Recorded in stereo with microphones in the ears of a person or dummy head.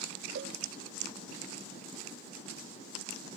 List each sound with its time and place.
0.3 s a cowbell: 50° right (ahead or behind), 0.5 m